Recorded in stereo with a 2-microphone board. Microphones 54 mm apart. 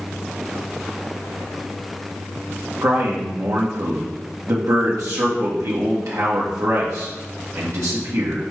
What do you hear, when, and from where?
2.8 s a man speaking: 75° right (ahead or behind), 1.0 m